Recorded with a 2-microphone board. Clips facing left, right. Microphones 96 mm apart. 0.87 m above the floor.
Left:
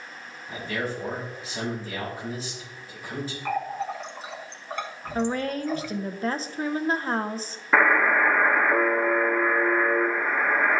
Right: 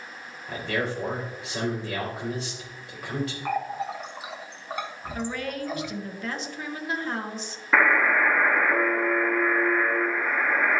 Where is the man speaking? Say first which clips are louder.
Right 2 dB; 75° right (ahead or behind), 3.5 m.